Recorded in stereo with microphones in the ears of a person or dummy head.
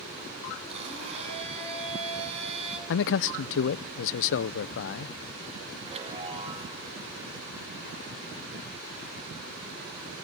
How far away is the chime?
About 2 m.